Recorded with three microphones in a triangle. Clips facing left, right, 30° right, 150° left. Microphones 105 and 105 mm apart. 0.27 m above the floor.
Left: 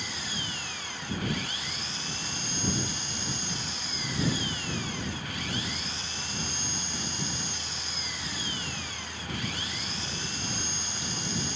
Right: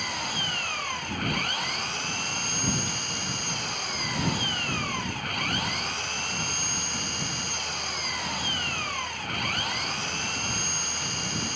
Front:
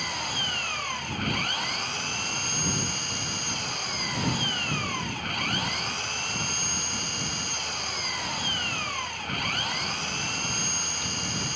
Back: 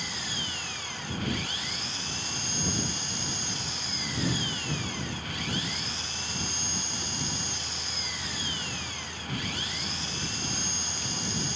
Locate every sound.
0.0 s an engine running: 60° right